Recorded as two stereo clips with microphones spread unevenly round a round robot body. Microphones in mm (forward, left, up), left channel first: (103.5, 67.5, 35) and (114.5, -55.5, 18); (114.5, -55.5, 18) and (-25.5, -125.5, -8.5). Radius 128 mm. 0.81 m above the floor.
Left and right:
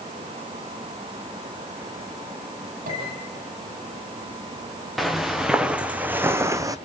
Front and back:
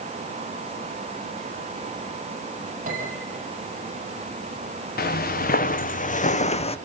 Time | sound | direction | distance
2.9 | a piano | 115° right | 9.5 m
5.0 | footsteps | 5° left | 3.5 m